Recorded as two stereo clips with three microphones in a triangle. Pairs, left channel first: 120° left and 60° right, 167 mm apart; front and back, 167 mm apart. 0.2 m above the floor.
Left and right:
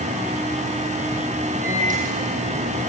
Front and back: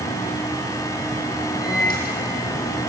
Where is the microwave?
25° right, 8 m.